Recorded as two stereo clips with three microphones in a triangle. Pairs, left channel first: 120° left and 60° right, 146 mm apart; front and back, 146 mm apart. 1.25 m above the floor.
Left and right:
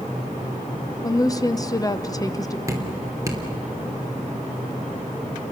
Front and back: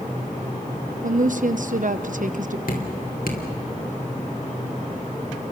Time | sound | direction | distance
1.0 | a woman speaking | straight behind | 1.0 m
2.7 | dripping | 5° left | 3 m